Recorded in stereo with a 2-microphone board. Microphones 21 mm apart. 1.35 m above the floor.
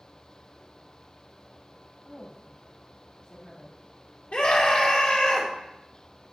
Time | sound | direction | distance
2.0 | a woman speaking | 45° left (ahead or behind) | 3.5 m
4.3 | a scream | 85° left | 2.5 m